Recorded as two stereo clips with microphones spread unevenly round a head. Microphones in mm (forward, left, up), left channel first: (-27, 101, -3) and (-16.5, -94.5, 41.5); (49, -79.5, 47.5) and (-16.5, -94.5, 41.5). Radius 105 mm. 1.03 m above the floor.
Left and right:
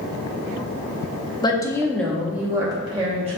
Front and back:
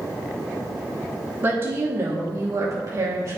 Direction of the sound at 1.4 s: 145° left.